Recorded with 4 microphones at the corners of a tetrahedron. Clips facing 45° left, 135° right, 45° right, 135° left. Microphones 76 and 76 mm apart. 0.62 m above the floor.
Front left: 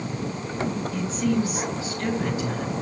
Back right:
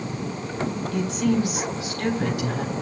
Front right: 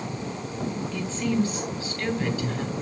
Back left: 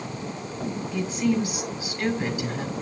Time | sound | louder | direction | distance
0.9 | a woman speaking | back right 3 dB, back left 3 dB | 150° right | 4.5 m